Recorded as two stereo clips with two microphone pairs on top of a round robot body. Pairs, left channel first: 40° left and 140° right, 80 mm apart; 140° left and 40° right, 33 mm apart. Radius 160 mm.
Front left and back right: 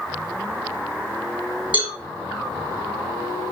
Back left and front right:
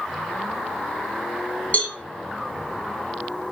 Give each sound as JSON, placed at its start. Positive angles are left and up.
{"t": 1.7, "sound": "a cowbell", "azimuth_deg": 165, "distance_m": 1.2}